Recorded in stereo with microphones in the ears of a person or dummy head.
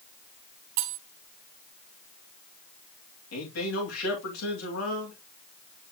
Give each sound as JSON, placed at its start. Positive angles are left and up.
{"t": 0.8, "sound": "cutlery clinking", "side_deg": -60, "distance_m": 2.0}
{"t": 3.3, "sound": "a man speaking", "side_deg": 75, "distance_m": 2.5}